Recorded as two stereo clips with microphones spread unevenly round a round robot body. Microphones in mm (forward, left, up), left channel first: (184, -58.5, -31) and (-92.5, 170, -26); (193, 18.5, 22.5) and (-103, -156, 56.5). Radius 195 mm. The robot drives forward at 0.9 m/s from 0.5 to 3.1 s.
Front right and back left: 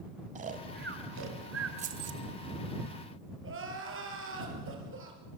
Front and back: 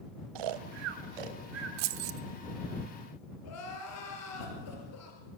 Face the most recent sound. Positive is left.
turn(degrees=85)